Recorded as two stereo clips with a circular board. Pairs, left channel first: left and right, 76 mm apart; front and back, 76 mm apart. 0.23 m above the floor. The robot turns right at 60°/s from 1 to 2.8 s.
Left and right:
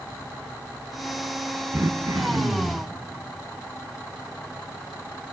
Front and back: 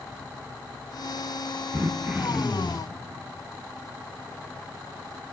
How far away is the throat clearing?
About 0.6 m.